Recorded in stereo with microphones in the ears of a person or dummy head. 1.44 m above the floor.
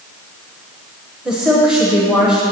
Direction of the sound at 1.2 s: 5° right (ahead or behind).